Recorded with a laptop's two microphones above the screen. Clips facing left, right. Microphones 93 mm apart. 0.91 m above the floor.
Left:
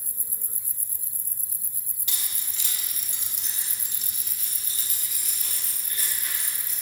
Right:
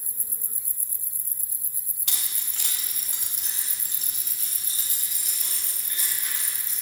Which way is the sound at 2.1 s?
75° right (ahead or behind).